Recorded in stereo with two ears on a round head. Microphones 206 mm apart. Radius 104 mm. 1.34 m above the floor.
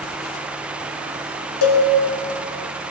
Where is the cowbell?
75° left (ahead or behind), 1.8 m.